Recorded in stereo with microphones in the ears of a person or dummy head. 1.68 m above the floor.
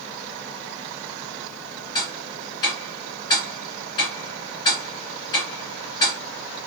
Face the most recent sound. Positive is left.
turn(degrees=30)  # may be behind; listen again after turning